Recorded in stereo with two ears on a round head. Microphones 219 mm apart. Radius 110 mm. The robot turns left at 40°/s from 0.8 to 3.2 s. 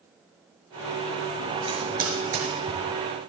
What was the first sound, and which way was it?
Typing on a keyboard, 20° right (ahead or behind).